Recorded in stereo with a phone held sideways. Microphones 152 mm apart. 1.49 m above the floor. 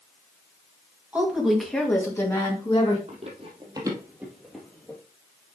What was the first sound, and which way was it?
A woman speaking, 10° right (ahead or behind).